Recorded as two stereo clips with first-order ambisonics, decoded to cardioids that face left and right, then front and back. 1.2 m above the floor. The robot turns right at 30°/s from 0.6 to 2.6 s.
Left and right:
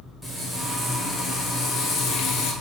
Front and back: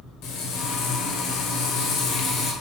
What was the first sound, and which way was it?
Frying, straight ahead.